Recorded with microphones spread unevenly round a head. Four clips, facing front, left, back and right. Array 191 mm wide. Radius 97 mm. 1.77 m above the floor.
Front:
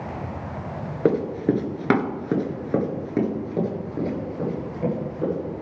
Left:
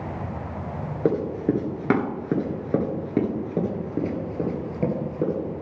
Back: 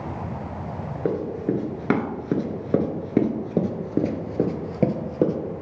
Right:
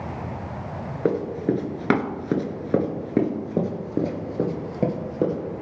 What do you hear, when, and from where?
1.1 s running footsteps: 15° left, 1.9 m; by 5.4 s 165° right, 2.5 m